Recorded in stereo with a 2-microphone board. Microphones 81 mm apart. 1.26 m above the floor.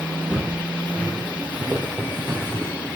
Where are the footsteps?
10° right (ahead or behind), 5 m; by 2.7 s 30° right (ahead or behind), 4 m.